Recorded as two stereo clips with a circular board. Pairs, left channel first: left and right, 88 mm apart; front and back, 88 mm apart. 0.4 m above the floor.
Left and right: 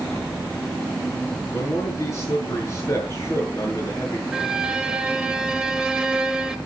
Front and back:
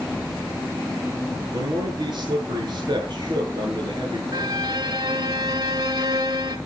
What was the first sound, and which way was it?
A man speaking, 150° left.